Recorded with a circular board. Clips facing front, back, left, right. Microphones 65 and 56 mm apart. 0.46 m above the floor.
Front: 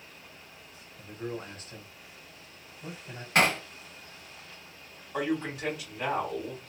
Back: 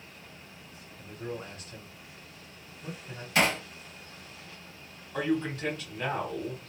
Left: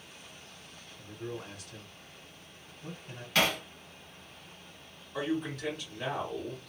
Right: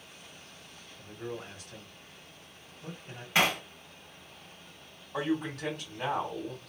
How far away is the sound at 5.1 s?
About 2.5 m.